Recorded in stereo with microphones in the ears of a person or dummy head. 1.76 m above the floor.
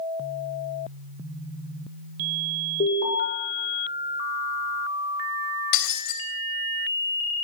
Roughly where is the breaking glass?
Left.